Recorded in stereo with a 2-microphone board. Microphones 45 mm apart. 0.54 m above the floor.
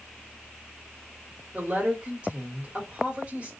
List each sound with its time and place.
1.5 s a woman speaking: 25° right (ahead or behind), 2 m